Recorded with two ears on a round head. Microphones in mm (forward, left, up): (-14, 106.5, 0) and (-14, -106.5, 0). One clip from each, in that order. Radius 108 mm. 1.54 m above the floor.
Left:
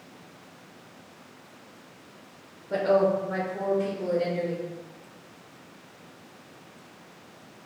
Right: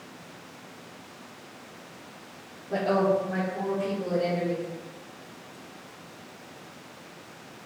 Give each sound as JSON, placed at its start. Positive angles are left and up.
{"t": 2.7, "sound": "a woman speaking", "side_deg": 45, "distance_m": 0.9}